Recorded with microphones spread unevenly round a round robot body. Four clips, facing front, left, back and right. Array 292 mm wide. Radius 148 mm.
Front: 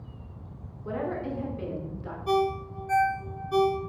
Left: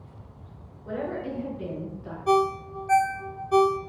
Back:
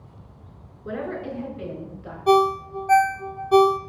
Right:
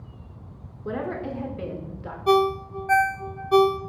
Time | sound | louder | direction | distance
0.8 | a woman speaking | right 2 dB, back 1 dB | 110° right | 2.0 m
2.3 | a ringtone | right 2 dB, back 8 dB | 155° right | 0.5 m